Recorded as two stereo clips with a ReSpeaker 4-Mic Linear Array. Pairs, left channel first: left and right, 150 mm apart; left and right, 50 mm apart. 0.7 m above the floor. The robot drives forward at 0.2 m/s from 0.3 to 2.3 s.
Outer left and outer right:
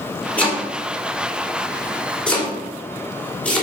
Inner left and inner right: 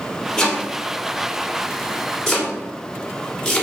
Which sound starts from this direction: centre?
Chopping, at 0.4 s.